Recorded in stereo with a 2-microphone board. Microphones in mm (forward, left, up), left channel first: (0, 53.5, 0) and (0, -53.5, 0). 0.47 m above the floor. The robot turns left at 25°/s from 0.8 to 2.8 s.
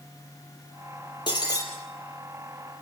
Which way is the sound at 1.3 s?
45° left (ahead or behind).